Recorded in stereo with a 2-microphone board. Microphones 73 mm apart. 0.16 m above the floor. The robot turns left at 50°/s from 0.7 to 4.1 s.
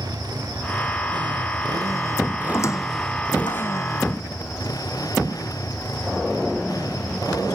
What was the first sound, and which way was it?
A motorcycle, 65° right.